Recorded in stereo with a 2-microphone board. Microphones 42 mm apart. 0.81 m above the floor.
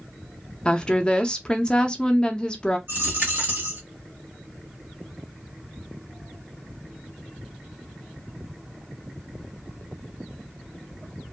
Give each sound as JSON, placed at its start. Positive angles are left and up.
{"t": 0.7, "sound": "a woman speaking", "side_deg": 20, "distance_m": 0.5}
{"t": 2.9, "sound": "a dropped coin", "side_deg": -50, "distance_m": 1.0}